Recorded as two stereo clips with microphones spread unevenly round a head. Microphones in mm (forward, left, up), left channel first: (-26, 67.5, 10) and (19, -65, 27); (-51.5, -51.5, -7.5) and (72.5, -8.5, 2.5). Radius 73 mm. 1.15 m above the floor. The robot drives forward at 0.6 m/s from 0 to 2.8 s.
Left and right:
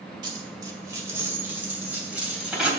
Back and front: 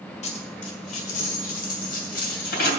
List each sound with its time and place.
0.2 s a dropped coin: 125° right, 1.7 m; by 2.7 s 155° right, 3 m